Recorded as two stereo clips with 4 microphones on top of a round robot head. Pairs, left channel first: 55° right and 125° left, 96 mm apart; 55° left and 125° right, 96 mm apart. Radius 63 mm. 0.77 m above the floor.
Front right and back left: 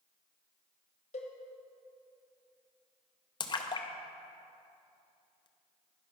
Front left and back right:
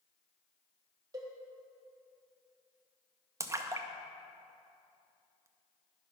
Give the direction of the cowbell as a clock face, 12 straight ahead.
2 o'clock.